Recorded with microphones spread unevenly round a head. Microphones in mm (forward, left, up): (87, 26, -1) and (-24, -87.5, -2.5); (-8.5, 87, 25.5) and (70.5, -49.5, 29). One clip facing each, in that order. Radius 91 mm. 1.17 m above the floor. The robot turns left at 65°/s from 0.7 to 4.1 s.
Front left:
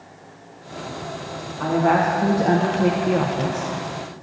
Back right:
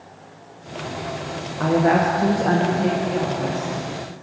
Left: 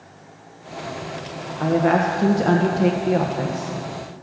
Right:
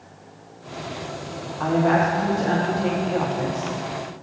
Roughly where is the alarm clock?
I don't hear an alarm clock.